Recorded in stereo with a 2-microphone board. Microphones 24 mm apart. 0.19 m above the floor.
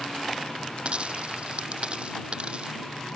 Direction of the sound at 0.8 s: 45° right (ahead or behind).